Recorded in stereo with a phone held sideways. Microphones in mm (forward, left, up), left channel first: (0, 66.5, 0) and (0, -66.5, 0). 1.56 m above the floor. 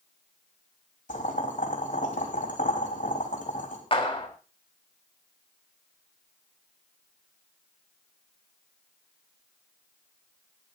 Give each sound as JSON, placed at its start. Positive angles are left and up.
{"t": 1.1, "sound": "boiling", "side_deg": 70, "distance_m": 4.0}
{"t": 3.9, "sound": "a clap", "side_deg": 45, "distance_m": 4.0}